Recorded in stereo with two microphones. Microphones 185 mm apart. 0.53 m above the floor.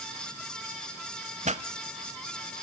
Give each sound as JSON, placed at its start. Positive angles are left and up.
{"t": 1.4, "sound": "a pop", "side_deg": -35, "distance_m": 0.7}